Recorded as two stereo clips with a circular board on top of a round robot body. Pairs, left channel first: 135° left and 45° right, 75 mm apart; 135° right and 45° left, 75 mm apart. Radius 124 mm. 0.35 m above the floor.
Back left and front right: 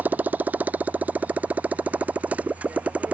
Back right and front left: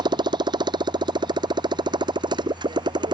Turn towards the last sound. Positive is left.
turn(degrees=25)